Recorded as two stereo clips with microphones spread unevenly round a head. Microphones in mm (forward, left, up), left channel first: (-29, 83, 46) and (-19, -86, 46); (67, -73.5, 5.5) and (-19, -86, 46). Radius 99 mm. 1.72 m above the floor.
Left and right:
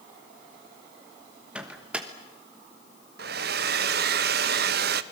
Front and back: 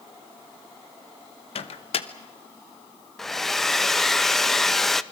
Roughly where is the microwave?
Ahead.